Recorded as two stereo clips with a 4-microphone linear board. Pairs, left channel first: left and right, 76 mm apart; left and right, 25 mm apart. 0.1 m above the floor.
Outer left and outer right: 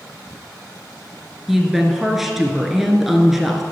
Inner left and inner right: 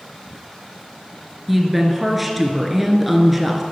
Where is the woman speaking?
5° right (ahead or behind), 1.2 m.